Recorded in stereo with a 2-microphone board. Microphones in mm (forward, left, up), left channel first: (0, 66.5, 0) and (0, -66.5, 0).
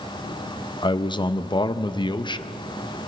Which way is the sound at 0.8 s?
35° left (ahead or behind).